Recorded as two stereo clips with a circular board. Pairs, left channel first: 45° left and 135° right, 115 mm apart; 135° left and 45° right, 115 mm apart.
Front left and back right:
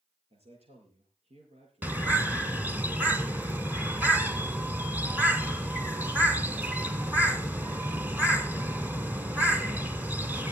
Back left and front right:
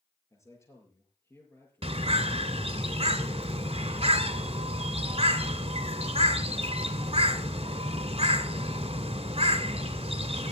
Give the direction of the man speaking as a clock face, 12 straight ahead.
5 o'clock.